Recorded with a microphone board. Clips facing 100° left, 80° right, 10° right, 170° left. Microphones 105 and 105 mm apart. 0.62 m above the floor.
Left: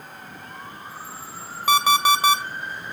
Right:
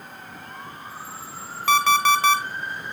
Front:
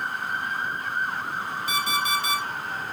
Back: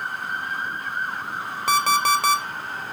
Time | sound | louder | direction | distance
1.7 | an alarm clock | even, back 8 dB | 175° left | 1.4 m